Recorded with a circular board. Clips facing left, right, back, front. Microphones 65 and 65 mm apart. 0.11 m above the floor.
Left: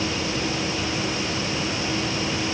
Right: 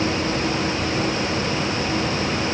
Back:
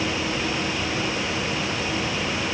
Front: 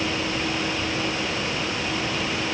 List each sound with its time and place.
Only background noise.